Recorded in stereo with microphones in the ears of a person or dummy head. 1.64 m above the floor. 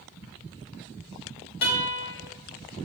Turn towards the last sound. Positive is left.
turn(degrees=35)  # may be behind; listen again after turning